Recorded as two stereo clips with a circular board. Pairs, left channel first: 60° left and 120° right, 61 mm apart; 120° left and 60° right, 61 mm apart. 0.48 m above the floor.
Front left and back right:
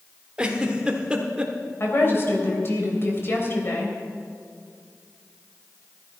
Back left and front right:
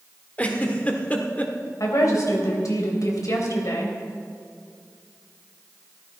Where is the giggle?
175° left, 1.2 m.